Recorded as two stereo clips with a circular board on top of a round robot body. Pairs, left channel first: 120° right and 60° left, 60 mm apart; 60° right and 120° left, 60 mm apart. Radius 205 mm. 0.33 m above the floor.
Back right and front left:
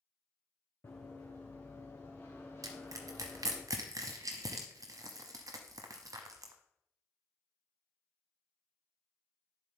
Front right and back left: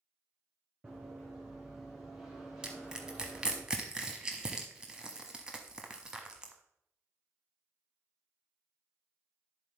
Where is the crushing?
40° left, 0.7 m.